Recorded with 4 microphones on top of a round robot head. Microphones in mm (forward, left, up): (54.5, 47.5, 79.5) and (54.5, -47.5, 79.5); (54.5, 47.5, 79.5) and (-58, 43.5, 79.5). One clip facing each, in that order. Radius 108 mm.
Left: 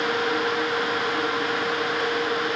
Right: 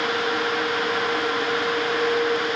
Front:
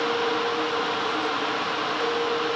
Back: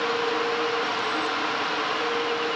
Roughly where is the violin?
I don't hear a violin.